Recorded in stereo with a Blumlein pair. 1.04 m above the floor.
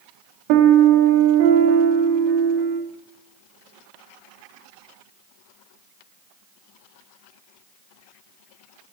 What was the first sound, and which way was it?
A piano, 45° right.